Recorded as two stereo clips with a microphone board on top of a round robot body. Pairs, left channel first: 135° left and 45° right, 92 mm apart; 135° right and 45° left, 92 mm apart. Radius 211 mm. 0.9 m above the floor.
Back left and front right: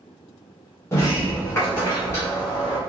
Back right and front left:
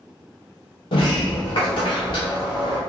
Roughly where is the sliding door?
Behind.